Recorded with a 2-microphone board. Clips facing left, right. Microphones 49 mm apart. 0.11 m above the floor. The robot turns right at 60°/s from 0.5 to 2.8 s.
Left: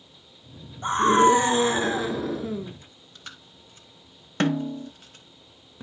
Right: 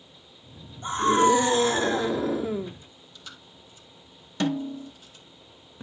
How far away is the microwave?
I don't hear a microwave.